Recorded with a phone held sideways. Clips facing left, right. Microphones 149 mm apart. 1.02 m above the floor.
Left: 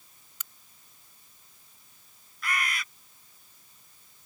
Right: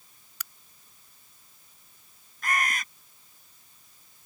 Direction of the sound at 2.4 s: 45° right (ahead or behind).